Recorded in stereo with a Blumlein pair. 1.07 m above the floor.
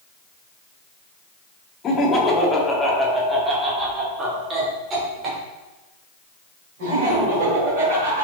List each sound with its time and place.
1.8 s laughter: 25° left, 2.0 m; by 8.2 s 45° right, 5 m